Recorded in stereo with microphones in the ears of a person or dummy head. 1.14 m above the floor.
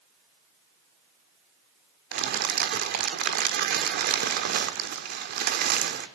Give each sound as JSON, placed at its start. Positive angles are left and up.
{"t": 2.1, "sound": "crumpling", "side_deg": -50, "distance_m": 1.4}